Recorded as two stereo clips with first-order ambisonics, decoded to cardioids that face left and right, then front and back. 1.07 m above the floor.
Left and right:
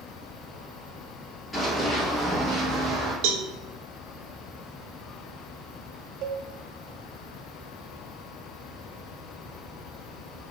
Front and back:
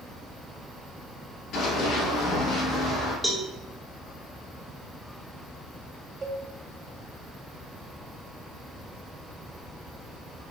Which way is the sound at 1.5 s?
5° left.